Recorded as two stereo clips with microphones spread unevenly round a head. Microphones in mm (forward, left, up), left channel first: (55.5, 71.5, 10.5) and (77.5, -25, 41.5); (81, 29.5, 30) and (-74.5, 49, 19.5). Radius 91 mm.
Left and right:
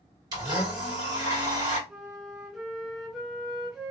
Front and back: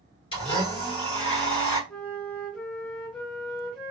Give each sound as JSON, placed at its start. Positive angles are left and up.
{"t": 0.3, "sound": "a blender", "azimuth_deg": -65, "distance_m": 1.7}
{"t": 1.9, "sound": "a flute", "azimuth_deg": -75, "distance_m": 0.7}